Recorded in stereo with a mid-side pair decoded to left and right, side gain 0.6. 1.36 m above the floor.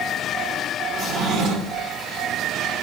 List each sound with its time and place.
0.9 s a drawer: 50° right, 2.5 m